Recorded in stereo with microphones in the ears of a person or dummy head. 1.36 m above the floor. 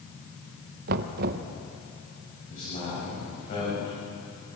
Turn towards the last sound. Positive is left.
turn(degrees=40)  # may be behind; listen again after turning